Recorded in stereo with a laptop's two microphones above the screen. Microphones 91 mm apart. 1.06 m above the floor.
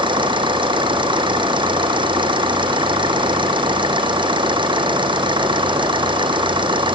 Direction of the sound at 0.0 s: 65° right (ahead or behind).